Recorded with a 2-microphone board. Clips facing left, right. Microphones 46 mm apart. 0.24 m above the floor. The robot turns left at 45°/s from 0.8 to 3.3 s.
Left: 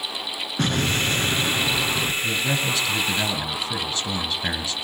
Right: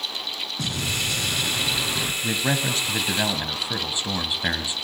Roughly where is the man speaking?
Right.